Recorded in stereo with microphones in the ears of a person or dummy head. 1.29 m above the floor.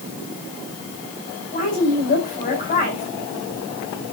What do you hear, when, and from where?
1.5 s a woman speaking: 35° left (ahead or behind), 9.5 m